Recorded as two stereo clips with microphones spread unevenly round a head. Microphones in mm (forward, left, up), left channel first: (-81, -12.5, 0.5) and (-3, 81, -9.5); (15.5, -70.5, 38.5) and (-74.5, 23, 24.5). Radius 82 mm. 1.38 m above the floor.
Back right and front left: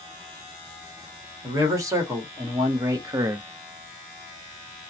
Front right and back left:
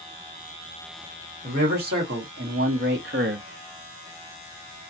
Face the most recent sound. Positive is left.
turn(degrees=115)